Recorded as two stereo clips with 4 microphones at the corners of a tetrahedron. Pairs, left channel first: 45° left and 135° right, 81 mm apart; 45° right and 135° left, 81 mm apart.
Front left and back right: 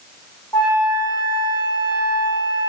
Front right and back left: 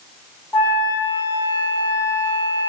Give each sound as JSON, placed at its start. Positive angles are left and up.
{"t": 0.5, "sound": "a flute", "azimuth_deg": 20, "distance_m": 4.5}